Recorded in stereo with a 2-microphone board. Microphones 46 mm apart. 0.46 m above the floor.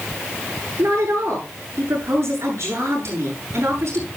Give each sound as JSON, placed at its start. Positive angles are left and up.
{"t": 0.8, "sound": "a woman speaking", "side_deg": -65, "distance_m": 8.5}